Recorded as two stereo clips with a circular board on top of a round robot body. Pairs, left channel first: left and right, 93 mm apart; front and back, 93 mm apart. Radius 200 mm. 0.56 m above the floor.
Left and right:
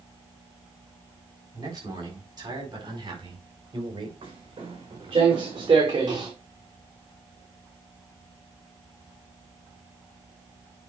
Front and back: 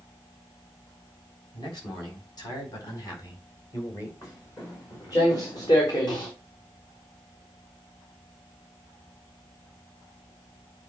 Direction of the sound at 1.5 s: 40° right.